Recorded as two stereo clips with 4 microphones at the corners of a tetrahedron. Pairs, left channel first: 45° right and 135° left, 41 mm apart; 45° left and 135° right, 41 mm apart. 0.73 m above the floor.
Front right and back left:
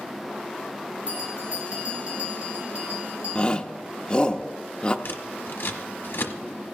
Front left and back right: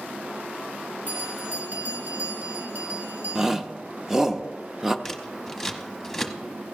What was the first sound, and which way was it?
A bell, 170° right.